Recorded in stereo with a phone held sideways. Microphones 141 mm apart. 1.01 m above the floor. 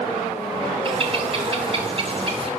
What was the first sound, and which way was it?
A bird, 40° right (ahead or behind).